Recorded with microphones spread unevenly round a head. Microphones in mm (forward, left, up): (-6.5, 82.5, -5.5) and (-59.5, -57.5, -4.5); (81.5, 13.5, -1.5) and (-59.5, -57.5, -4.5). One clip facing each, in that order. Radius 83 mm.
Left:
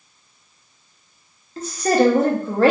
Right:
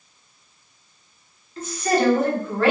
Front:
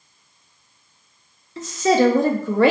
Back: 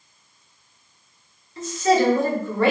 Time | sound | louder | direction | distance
1.6 | a woman speaking | left 4 dB, front 2 dB | 10° left | 0.6 m